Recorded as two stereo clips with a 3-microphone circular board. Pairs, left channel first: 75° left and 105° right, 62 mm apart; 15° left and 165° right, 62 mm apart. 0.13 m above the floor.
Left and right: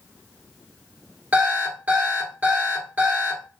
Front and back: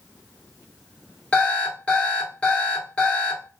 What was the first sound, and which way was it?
An alarm clock, 50° right.